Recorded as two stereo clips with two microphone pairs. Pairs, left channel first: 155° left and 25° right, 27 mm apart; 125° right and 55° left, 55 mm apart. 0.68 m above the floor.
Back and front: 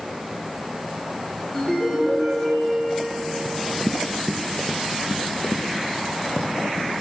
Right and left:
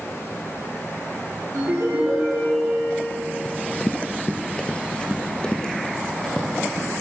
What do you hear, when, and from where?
1.6 s a ringtone: 80° left, 3 m
3.5 s running footsteps: 90° right, 0.7 m; by 6.9 s 160° left, 2 m